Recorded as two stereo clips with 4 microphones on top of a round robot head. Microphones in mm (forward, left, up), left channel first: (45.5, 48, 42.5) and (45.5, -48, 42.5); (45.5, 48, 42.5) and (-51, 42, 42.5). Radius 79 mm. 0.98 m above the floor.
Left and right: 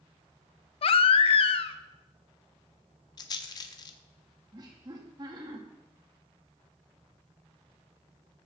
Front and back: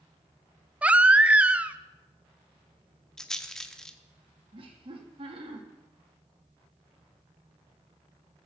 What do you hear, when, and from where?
0.8 s a baby crying: 110° left, 0.6 m
3.2 s a rattle: 85° left, 0.5 m
4.5 s laughter: 145° right, 2.0 m